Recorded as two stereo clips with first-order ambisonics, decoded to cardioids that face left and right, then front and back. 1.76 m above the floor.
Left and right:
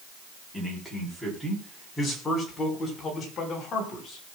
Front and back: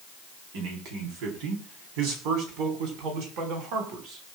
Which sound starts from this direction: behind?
A man speaking, at 0.5 s.